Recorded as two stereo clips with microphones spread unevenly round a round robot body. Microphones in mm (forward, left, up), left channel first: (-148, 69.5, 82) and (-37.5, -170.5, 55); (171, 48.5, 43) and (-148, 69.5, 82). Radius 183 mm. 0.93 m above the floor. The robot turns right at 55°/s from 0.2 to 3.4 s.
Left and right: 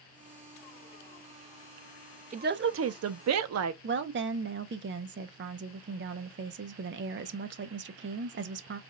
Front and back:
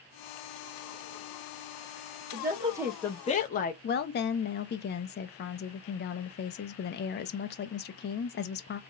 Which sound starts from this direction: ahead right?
A woman speaking, at 3.8 s.